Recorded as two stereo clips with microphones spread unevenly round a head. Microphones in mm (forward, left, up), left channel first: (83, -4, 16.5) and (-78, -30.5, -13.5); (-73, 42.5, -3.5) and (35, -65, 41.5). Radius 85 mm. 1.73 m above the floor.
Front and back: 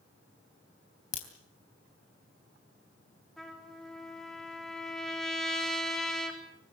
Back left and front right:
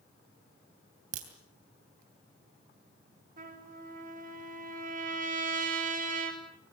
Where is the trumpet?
75° right, 4 m.